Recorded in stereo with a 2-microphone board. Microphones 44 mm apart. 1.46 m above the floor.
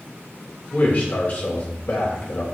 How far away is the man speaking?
About 1.1 m.